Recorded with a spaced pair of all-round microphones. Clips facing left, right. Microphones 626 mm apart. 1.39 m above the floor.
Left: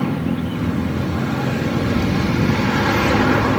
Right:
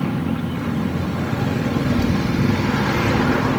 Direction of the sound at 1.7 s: 15° left (ahead or behind).